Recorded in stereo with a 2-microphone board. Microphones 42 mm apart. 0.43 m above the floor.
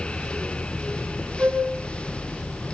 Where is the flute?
45° right (ahead or behind), 6 m.